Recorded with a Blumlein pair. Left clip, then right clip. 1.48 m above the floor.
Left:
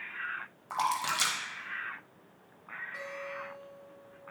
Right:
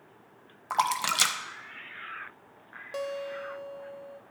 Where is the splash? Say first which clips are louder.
Right 4 dB; 25° right, 0.6 m.